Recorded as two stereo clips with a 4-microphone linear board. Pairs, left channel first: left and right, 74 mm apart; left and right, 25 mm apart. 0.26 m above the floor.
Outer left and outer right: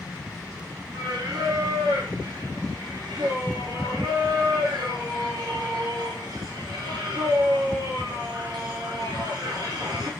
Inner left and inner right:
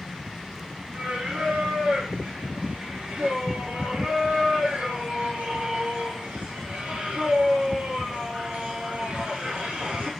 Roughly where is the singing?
Right.